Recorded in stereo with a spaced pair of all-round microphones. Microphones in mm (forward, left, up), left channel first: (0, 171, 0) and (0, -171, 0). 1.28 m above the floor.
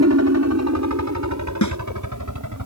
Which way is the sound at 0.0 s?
45° right (ahead or behind).